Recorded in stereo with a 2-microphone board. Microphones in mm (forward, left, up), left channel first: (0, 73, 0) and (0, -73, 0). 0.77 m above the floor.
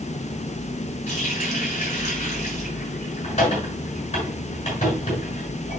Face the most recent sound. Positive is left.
turn(degrees=45)  # may be behind; listen again after turning